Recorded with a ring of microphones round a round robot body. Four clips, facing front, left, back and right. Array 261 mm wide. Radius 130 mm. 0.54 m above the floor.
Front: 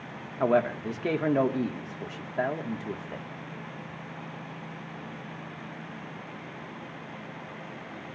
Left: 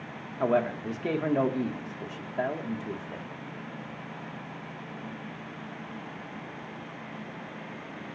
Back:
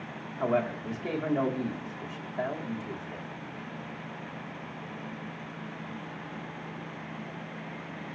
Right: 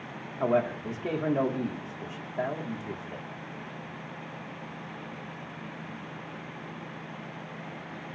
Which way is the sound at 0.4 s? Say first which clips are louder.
Even, front 4 dB; 20° left.